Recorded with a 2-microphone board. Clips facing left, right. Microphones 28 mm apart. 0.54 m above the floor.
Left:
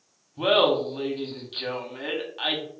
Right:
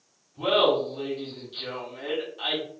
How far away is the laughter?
About 1.0 m.